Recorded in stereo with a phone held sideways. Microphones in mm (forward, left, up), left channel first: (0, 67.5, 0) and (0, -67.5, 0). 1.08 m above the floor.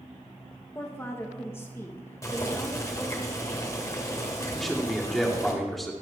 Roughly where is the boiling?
Left.